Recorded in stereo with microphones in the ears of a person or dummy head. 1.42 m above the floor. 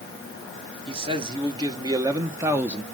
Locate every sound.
0.9 s a man speaking: 25° right (ahead or behind), 1.8 m; by 2.8 s centre (ahead or behind), 1.0 m